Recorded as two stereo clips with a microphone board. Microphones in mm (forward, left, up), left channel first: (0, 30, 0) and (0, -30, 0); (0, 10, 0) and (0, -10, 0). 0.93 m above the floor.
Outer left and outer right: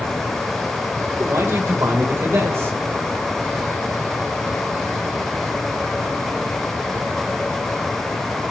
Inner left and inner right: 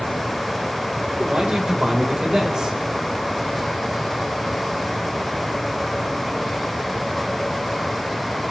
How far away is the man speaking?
About 3 m.